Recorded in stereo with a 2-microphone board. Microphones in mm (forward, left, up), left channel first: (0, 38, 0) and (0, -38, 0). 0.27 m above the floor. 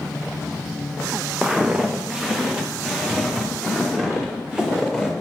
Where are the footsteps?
10° right (ahead or behind), 0.8 m; by 5.1 s 5° right (ahead or behind), 3 m.